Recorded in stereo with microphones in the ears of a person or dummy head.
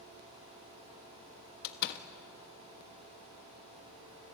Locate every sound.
1.6 s a door slam: 55° left (ahead or behind), 1.4 m